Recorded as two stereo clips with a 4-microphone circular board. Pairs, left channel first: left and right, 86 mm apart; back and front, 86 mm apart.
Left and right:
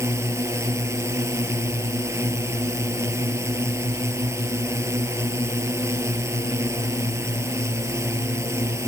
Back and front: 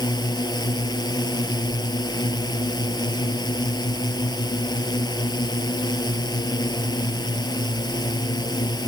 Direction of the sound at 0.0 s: 145° right.